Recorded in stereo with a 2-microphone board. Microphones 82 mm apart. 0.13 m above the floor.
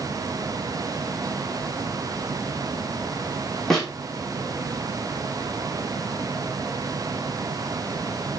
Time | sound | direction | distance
3.7 | a snare drum | 5° left (ahead or behind) | 2.5 m